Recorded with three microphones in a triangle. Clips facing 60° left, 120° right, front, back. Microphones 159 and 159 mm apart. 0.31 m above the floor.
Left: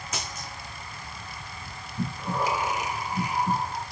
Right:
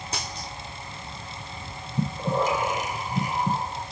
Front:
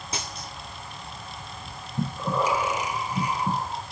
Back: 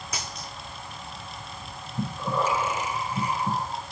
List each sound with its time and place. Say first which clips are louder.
0.1 s a dropped coin: right 1 dB, front 2 dB; 60° right, 10 m
2.0 s breathing: right 4 dB, front 1 dB; 75° right, 4.5 m